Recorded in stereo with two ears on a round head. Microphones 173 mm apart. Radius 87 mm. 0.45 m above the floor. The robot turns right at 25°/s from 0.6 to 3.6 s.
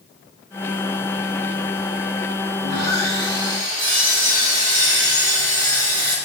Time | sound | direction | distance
2.6 | sawing | 45° right (ahead or behind) | 5 m